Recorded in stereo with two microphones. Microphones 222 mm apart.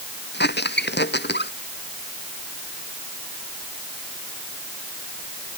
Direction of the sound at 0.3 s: 50° left (ahead or behind).